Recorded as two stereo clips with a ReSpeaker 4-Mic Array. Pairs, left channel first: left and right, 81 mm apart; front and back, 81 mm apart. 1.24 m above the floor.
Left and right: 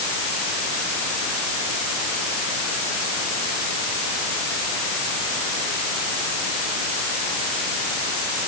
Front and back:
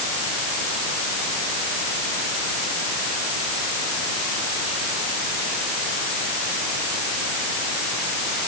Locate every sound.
Only background noise.